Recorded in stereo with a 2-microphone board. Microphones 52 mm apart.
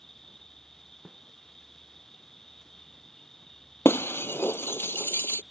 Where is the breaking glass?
50° left (ahead or behind).